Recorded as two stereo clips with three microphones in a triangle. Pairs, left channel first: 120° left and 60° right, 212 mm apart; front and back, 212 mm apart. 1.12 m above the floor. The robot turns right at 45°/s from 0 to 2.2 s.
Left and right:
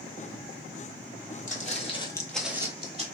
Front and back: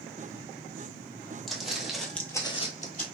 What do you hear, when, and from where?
1.5 s footsteps: 90° left, 1.5 m; by 3.1 s 20° right, 1.4 m